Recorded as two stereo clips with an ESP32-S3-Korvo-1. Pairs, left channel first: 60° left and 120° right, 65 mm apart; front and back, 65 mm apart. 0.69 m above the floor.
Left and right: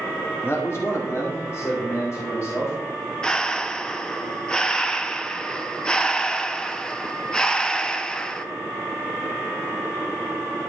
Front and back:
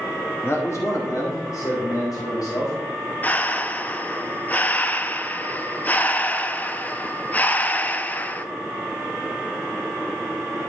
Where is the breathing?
Straight ahead, 0.5 m.